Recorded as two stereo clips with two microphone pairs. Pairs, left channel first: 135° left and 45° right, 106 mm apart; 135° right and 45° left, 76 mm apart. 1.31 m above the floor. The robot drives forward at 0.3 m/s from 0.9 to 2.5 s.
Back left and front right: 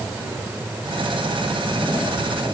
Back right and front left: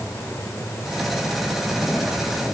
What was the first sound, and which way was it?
Only background noise.